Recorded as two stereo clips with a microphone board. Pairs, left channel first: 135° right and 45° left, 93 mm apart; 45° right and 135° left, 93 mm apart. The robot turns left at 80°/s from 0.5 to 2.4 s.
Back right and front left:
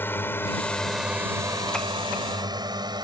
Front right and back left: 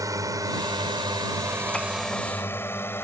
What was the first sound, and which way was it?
A drone, 165° left.